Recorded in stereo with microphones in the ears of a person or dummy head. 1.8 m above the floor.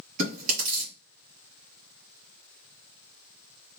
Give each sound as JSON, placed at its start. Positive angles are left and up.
{"t": 0.2, "sound": "chewing", "side_deg": -40, "distance_m": 2.0}